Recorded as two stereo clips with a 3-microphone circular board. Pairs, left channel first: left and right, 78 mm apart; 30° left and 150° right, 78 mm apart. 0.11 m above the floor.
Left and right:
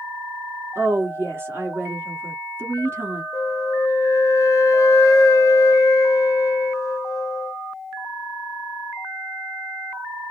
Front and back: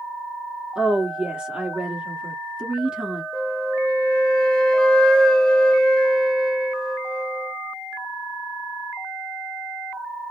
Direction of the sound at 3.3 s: 105° left.